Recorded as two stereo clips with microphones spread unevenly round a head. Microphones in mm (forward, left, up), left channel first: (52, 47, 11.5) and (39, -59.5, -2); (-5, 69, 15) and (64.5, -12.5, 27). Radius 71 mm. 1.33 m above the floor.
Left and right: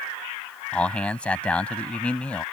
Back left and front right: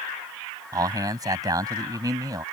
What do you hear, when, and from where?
0.7 s a man speaking: 5° left